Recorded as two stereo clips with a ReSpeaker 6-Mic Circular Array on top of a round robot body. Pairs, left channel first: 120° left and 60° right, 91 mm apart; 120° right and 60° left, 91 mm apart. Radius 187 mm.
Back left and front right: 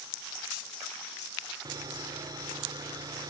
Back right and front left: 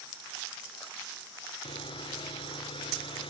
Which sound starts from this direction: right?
Sawing, at 1.6 s.